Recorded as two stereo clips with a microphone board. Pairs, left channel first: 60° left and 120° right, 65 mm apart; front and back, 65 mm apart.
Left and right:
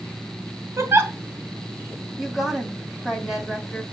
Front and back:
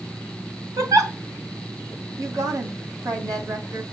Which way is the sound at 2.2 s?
155° left.